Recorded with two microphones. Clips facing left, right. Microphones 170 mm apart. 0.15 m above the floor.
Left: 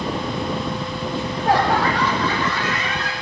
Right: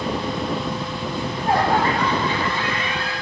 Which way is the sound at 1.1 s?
70° left (ahead or behind).